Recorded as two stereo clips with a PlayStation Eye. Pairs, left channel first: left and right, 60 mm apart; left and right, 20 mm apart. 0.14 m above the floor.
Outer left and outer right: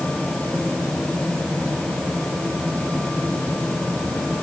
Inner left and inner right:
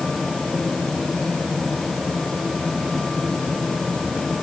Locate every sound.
Only background noise.